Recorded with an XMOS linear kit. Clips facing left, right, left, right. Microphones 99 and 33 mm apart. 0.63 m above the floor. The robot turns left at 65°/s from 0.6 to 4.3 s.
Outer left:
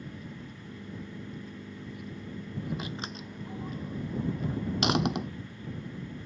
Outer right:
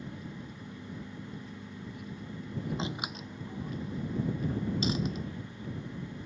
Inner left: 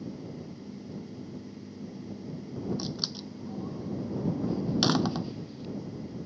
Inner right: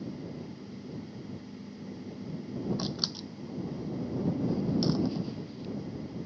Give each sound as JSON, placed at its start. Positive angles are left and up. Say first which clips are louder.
{"t": 2.8, "sound": "a door slam", "louder": "outer right 1 dB, inner right 1 dB", "side_deg": -25}